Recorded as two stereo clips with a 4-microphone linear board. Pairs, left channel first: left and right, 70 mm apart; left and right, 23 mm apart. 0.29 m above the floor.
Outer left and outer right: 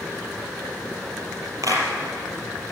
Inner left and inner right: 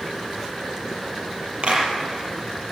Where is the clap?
55° right (ahead or behind), 5 m.